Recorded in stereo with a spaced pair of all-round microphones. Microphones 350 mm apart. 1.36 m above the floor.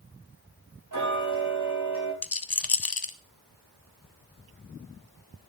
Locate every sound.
0.9 s ticking: 60° right (ahead or behind), 4 m
2.2 s a rattle: 80° left, 0.7 m